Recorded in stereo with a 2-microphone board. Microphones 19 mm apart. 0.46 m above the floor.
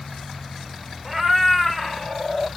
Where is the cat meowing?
20° right (ahead or behind), 0.6 m; by 2.5 s 30° left (ahead or behind), 1.1 m.